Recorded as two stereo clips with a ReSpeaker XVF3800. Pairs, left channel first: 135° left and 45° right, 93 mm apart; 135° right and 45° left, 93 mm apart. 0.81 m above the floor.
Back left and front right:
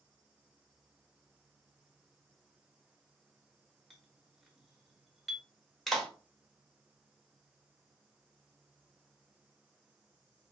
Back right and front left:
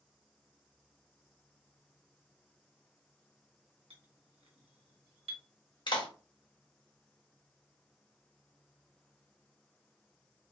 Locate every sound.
3.9 s a clink: 45° left, 0.8 m
5.9 s a clap: 140° right, 0.9 m